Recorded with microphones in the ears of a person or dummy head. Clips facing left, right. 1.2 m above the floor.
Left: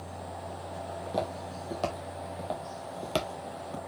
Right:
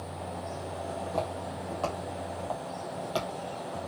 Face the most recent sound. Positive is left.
turn(degrees=40)  # may be behind; listen again after turning